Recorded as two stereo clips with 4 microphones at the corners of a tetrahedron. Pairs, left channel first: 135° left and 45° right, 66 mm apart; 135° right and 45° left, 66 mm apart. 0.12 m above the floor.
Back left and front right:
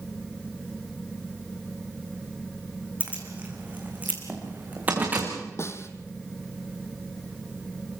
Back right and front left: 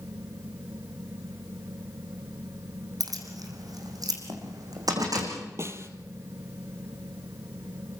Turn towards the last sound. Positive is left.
turn(degrees=90)